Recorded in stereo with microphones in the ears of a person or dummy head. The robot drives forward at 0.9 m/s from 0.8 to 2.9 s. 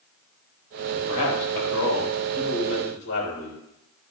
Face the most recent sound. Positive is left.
turn(degrees=80)